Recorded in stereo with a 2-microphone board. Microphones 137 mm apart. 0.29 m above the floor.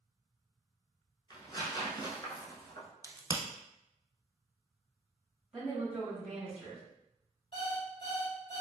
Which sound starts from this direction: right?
A crack, at 3.0 s.